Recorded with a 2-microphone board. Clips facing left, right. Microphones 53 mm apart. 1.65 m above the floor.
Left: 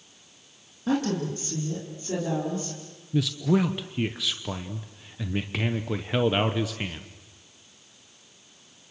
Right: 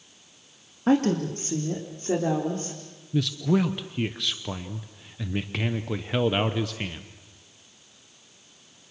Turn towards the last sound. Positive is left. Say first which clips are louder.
# even
turn(degrees=0)  # may be behind; listen again after turning